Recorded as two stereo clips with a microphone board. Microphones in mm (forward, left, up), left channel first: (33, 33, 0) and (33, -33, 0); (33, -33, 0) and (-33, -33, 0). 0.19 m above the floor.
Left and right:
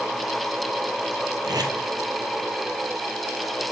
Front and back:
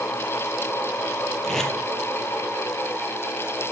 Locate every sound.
1.4 s tape being pulled: 80° right, 1.4 m